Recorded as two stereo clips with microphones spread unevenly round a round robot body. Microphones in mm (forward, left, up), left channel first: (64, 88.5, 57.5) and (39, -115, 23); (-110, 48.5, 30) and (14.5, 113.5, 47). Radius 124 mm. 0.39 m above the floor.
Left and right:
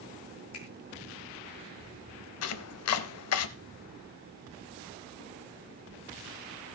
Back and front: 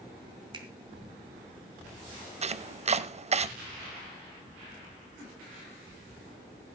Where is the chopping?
75° left, 0.7 m.